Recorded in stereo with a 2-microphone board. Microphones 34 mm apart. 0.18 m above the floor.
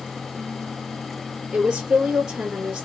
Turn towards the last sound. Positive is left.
turn(degrees=-30)  # may be behind; listen again after turning